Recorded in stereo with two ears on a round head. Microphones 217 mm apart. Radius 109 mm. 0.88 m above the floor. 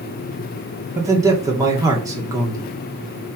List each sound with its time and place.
0.9 s a man speaking: 15° right (ahead or behind), 1.8 m